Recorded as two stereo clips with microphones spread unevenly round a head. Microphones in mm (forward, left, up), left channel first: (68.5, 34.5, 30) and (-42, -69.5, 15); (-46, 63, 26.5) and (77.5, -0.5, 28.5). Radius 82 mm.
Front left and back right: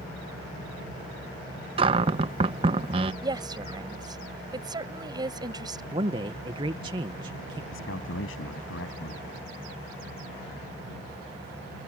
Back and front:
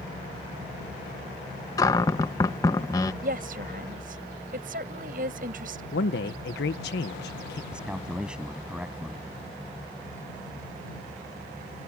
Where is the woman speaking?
70° right.